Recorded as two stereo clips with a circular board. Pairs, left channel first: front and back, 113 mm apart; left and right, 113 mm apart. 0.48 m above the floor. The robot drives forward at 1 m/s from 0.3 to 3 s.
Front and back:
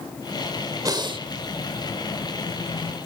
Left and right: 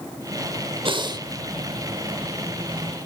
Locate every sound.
0.8 s breathing: 125° right, 0.8 m; by 1.3 s 145° right, 1.1 m